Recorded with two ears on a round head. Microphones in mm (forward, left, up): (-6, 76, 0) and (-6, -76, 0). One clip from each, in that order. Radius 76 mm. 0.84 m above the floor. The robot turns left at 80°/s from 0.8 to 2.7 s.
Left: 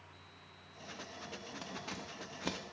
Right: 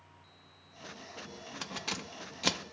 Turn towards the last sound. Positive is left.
turn(degrees=-55)  # may be behind; listen again after turning